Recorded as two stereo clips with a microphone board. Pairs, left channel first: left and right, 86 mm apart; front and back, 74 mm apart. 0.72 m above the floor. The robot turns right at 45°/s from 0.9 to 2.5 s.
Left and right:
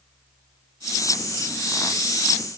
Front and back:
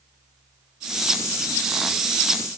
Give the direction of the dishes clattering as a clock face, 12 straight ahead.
No dishes clattering in this recording.